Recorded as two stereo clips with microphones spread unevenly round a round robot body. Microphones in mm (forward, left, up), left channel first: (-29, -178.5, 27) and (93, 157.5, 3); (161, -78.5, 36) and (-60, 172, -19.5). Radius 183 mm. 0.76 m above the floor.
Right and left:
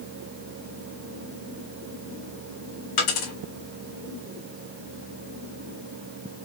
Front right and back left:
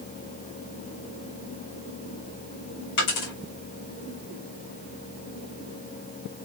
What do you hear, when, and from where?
3.0 s a dropped coin: 85° right, 3.5 m